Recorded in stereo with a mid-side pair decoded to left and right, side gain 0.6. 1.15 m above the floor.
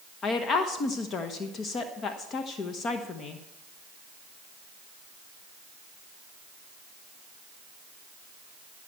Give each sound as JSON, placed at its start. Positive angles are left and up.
{"t": 0.2, "sound": "a woman speaking", "azimuth_deg": 45, "distance_m": 1.1}